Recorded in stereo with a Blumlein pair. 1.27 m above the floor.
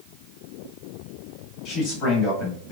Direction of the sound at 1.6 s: 35° left.